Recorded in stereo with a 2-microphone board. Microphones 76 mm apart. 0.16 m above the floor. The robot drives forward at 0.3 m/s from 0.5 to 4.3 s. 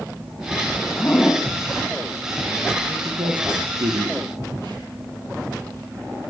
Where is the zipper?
20° left (ahead or behind), 6 m.